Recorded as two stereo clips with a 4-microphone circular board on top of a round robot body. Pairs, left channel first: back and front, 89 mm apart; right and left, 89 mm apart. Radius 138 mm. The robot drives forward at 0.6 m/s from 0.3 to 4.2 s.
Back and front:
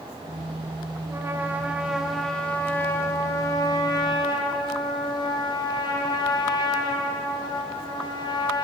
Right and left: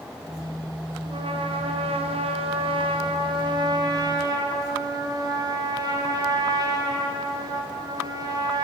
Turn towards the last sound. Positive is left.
turn(degrees=140)